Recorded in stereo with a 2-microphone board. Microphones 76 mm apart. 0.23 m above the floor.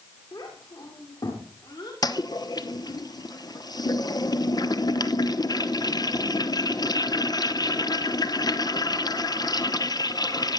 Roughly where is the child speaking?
Left.